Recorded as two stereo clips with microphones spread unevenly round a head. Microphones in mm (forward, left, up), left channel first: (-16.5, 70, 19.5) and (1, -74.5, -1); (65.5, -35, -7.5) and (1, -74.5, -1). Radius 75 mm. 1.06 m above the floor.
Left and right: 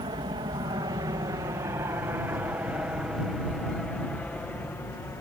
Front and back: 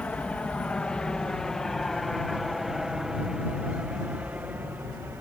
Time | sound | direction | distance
0.0 | an aircraft | 35° right | ?